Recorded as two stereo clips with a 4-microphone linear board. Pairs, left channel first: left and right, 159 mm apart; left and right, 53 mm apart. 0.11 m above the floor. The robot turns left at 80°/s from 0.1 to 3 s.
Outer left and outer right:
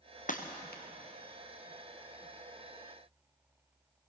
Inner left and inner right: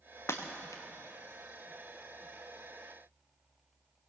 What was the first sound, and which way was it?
Breaking glass, 55° left (ahead or behind).